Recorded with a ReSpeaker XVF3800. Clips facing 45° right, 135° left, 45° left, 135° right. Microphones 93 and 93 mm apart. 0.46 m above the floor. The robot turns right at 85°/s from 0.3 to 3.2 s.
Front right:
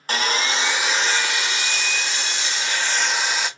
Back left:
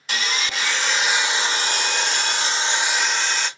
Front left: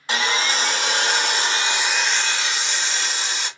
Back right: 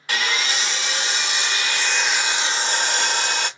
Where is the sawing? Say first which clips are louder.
Front right 4 dB, front left 2 dB; 15° right, 0.8 m; by 3.5 s 125° right, 0.8 m.